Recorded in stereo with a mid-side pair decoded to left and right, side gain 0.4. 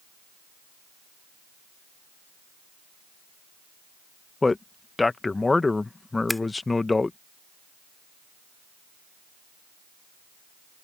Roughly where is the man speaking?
Ahead left.